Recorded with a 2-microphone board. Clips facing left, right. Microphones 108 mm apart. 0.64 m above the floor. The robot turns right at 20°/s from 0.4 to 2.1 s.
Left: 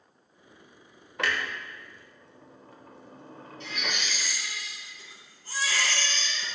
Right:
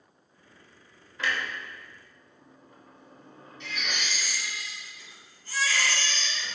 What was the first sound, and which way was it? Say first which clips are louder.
A clunk: left 1 dB; 65° left (ahead or behind).